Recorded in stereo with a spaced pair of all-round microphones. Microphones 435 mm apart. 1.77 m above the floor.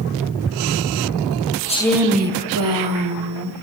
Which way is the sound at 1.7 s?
15° left (ahead or behind).